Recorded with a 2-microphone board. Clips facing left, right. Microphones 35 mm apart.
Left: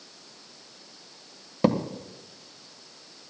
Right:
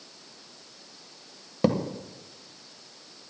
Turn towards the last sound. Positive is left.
turn(degrees=5)  # may be behind; listen again after turning